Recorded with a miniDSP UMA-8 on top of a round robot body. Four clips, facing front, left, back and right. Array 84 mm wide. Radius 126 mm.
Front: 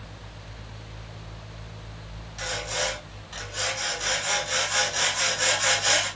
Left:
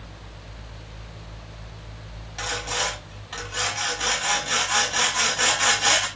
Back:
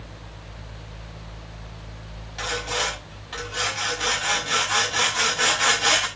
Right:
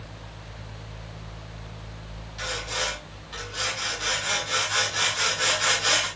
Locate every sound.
2.4 s sawing: 135° left, 7.5 m